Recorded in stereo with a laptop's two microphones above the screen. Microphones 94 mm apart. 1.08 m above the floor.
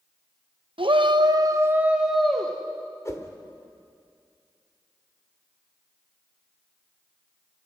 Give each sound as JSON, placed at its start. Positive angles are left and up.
{"t": 0.8, "sound": "a shout", "side_deg": -65, "distance_m": 1.1}
{"t": 3.0, "sound": "a whoosh", "side_deg": 35, "distance_m": 1.4}